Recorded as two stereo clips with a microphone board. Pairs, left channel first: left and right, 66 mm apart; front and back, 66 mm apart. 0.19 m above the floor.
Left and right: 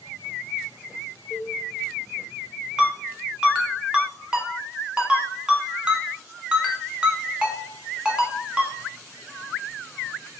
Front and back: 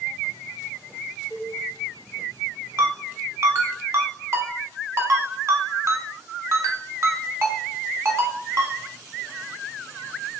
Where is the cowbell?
160° left, 1.7 m.